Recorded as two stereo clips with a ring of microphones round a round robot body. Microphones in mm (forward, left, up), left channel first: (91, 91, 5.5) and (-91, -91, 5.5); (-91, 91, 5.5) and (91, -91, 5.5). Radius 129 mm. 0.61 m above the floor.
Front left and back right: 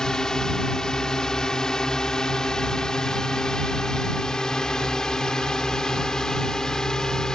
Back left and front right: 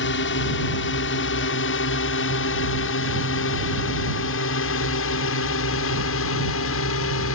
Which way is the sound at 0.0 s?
130° left.